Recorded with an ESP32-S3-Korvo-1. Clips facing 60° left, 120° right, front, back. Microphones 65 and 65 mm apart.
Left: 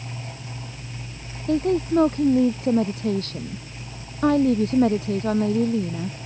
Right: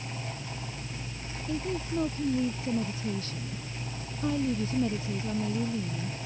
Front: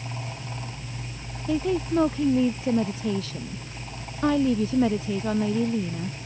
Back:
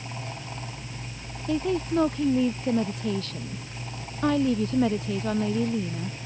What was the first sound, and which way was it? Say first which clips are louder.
A woman speaking: left 12 dB, front 1 dB; 85° left.